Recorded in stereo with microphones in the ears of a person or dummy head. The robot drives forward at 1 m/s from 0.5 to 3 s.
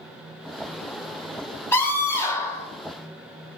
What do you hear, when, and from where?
1.7 s a scream: 15° left (ahead or behind), 4.5 m; by 2.7 s 20° left (ahead or behind), 3.5 m